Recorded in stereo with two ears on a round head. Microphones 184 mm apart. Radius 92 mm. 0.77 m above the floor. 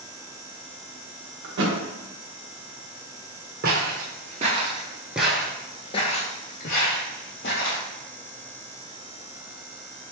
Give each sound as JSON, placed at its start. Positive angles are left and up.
{"t": 1.4, "sound": "a thud", "side_deg": -60, "distance_m": 0.8}
{"t": 3.6, "sound": "footsteps", "side_deg": -50, "distance_m": 1.1}